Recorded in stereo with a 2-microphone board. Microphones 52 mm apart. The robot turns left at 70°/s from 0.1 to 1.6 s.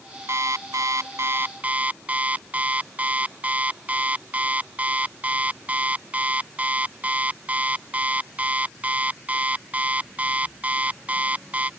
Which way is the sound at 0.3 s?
60° right.